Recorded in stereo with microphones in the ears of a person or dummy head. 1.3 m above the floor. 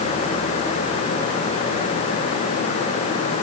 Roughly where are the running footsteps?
No running footsteps in this recording.